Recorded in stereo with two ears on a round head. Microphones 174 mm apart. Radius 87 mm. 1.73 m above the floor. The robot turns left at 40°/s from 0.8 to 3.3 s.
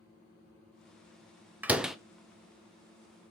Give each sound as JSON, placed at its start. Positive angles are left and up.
{"t": 1.6, "sound": "a door slam", "side_deg": -10, "distance_m": 0.6}